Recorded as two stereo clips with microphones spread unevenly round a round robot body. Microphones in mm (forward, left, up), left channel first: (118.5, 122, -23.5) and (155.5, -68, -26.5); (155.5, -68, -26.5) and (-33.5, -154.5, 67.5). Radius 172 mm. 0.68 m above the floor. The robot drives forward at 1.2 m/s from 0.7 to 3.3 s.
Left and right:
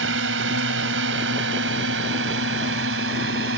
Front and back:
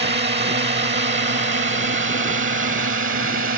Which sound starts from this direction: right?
A drone, at 0.0 s.